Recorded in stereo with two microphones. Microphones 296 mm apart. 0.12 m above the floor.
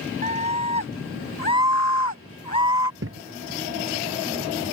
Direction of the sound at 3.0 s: 50° right (ahead or behind).